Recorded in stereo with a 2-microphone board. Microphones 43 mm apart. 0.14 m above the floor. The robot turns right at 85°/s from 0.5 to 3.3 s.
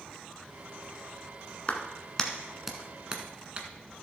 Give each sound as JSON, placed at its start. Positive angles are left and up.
{"t": 1.7, "sound": "a clap", "side_deg": 25, "distance_m": 1.4}